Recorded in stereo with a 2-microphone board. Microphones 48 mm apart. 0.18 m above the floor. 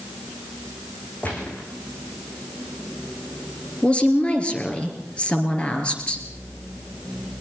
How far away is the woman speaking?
About 3 m.